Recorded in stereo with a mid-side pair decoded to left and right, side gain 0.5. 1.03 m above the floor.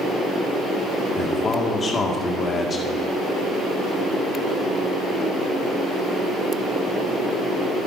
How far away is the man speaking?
About 2.0 m.